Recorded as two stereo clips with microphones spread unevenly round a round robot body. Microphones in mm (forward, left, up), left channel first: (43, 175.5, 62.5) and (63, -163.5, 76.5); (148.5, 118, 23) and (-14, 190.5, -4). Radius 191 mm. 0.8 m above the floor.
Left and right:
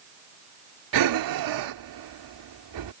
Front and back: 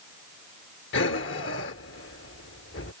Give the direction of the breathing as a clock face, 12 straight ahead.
2 o'clock.